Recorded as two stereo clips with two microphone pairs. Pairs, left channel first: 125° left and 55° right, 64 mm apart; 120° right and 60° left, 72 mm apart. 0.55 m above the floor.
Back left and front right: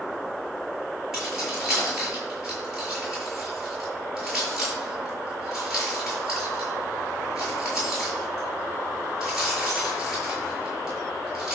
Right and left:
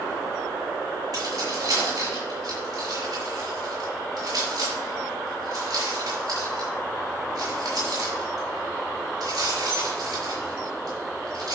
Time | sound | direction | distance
1.1 | keys jangling | 30° left | 6.5 m